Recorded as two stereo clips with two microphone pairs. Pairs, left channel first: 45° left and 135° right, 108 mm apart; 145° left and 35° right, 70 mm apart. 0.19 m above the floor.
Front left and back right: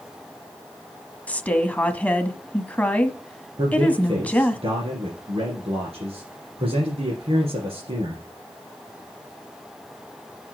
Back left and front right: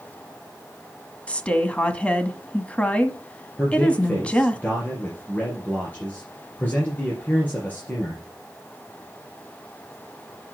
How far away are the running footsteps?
No running footsteps in this recording.